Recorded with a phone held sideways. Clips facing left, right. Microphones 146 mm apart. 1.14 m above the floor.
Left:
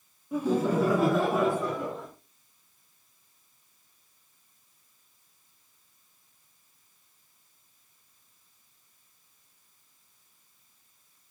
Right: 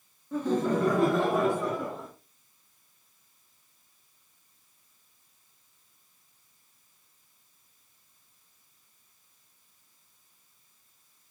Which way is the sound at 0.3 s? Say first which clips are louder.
Left 1 dB; 10° left (ahead or behind).